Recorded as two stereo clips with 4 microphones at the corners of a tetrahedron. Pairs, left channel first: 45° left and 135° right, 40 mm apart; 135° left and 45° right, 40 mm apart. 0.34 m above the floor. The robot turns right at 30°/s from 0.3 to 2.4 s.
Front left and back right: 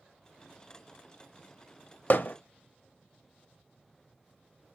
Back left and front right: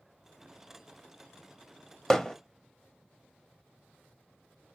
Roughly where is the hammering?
Ahead left.